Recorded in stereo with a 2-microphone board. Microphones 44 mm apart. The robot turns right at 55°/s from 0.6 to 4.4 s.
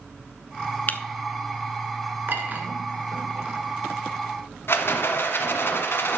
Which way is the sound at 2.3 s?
50° right (ahead or behind).